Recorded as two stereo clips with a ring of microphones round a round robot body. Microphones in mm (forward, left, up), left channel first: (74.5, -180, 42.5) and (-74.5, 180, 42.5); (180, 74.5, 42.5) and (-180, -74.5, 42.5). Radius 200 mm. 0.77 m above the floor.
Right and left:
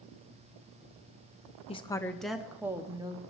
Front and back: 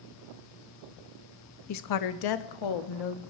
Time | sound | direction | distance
1.7 | a woman speaking | straight ahead | 0.8 m